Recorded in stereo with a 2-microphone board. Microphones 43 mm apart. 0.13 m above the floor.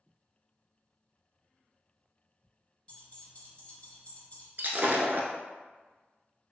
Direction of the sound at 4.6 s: 50° right (ahead or behind).